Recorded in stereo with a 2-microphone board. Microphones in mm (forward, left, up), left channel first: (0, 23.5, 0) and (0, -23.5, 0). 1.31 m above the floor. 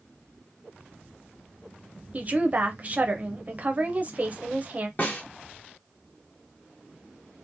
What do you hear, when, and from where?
2.1 s a woman speaking: 35° right (ahead or behind), 0.5 m
5.0 s a snare drum: 40° left (ahead or behind), 0.8 m